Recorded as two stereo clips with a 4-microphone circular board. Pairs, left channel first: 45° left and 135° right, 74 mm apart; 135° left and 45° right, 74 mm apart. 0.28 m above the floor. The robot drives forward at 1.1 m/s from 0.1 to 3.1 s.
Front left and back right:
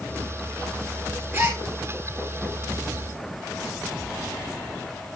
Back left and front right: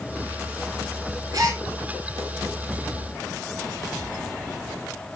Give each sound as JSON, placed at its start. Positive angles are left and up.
{"t": 1.3, "sound": "a gasp", "azimuth_deg": -80, "distance_m": 5.0}